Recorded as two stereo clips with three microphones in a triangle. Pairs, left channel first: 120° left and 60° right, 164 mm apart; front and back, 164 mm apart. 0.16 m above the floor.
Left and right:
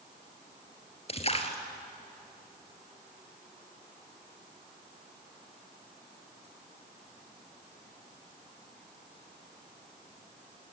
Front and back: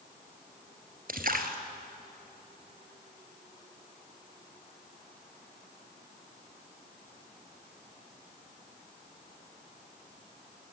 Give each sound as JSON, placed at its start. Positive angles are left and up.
{"t": 1.1, "sound": "a splash", "azimuth_deg": 165, "distance_m": 1.6}